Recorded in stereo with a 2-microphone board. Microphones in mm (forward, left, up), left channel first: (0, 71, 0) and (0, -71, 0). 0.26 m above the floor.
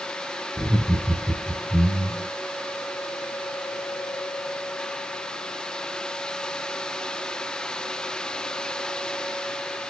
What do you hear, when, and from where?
0.6 s laughter: 55° right (ahead or behind), 2.5 m